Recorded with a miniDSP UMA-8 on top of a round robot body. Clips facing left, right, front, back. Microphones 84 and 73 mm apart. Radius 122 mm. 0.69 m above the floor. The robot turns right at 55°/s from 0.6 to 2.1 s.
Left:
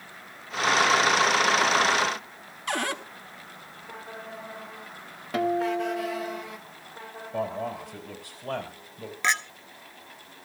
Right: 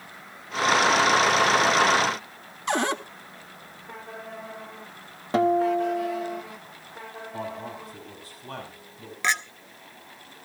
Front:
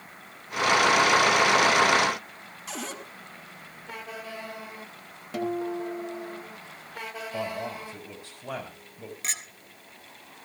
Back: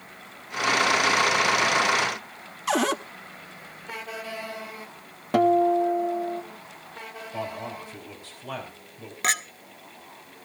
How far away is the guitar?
About 1.4 m.